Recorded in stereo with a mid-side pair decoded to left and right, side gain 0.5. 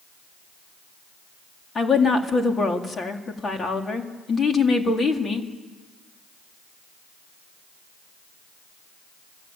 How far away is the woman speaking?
About 3.5 m.